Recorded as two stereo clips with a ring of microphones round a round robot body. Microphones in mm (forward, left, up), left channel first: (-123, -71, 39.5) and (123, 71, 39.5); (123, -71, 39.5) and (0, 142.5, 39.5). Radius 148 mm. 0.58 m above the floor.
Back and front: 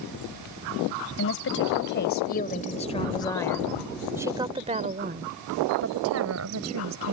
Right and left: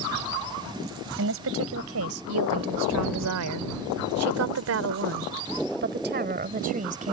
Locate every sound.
1.2 s a woman speaking: 165° left; by 7.1 s 60° left